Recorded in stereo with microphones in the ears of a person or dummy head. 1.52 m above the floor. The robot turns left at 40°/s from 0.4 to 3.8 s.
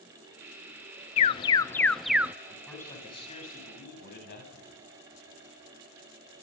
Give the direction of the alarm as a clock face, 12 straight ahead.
11 o'clock.